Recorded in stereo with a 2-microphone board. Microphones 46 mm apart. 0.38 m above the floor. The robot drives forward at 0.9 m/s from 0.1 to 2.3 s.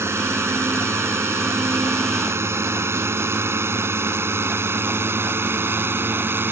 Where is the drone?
70° right (ahead or behind); by 6.5 s 50° right (ahead or behind).